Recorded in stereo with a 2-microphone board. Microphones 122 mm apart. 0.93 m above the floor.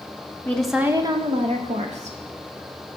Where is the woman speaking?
15° left (ahead or behind), 0.6 m; by 2.2 s 75° right (ahead or behind), 1.3 m.